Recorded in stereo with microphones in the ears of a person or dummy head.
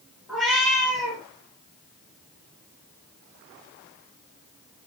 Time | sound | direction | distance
0.3 | a cat meowing | centre (ahead or behind) | 1.1 m